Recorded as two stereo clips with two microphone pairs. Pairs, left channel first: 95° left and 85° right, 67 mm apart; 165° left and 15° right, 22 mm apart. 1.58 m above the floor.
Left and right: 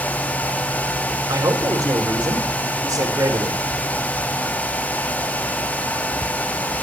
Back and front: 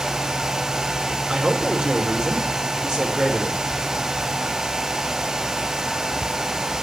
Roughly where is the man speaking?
Ahead right.